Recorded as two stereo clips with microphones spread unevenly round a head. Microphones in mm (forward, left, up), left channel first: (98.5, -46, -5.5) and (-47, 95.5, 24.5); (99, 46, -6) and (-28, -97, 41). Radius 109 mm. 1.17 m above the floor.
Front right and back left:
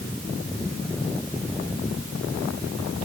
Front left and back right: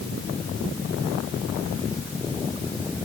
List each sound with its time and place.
Only background noise.